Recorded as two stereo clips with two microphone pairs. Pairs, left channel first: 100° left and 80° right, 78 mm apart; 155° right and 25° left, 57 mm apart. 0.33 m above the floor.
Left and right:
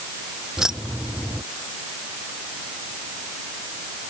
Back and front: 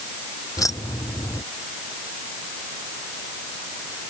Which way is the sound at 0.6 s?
160° right.